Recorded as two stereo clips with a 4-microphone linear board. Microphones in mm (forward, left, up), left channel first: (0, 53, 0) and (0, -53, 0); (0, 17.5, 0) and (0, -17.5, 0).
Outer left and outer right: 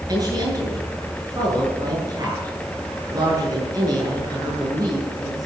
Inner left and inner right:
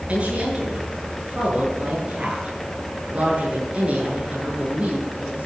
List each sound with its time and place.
0.1 s a woman speaking: 35° right (ahead or behind), 8 m